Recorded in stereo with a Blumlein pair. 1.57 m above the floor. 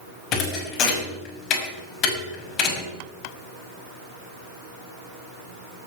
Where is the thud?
30° left, 5.5 m.